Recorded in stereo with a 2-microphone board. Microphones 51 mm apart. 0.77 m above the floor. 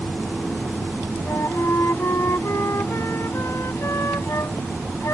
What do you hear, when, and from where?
1.2 s a flute: 65° left (ahead or behind)